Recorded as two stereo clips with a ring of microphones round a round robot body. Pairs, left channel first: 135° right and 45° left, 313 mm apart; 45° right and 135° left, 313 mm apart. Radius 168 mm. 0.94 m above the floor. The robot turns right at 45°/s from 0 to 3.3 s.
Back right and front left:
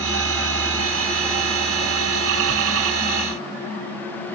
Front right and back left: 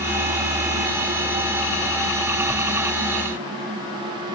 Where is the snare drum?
No snare drum in this recording.